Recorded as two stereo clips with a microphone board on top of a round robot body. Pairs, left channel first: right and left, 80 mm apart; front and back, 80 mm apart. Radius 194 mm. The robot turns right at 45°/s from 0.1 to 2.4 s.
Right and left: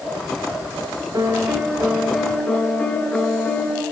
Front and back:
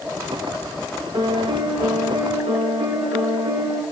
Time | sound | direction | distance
1.1 | a piano | 140° left | 0.8 m